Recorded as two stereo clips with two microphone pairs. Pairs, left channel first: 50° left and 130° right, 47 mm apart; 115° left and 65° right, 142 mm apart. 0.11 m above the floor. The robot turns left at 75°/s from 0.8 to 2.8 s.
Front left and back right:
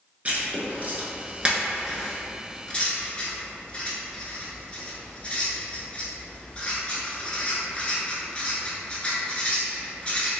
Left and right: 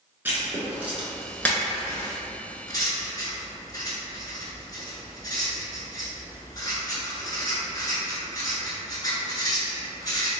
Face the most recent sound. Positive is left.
turn(degrees=85)